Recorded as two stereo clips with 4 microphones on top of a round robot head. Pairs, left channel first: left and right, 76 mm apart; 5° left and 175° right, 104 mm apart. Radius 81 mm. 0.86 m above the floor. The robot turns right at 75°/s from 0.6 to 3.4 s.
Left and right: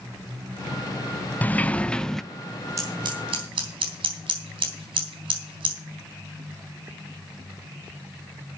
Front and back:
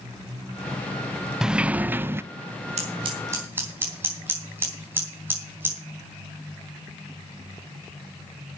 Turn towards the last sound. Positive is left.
turn(degrees=-105)